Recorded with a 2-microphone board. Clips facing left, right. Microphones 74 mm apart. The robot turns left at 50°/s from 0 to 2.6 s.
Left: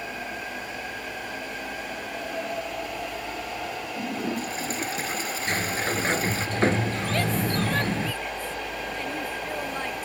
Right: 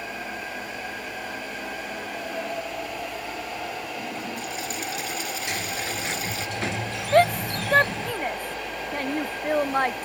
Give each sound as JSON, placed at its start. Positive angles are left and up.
{"t": 4.0, "sound": "a toilet flushing", "side_deg": 35}
{"t": 5.5, "sound": "a sliding door", "side_deg": 40}
{"t": 7.1, "sound": "a shout", "side_deg": -50}